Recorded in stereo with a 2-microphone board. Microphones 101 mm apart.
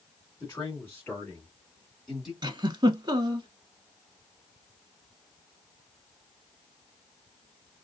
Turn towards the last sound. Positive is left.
turn(degrees=-45)  # may be behind; listen again after turning